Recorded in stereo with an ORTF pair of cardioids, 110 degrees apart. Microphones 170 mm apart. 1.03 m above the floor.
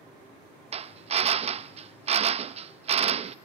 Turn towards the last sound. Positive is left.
turn(degrees=-35)